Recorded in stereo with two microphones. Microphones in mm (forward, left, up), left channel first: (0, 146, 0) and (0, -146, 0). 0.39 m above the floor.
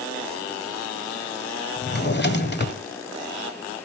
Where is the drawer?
35° left (ahead or behind), 1.3 m.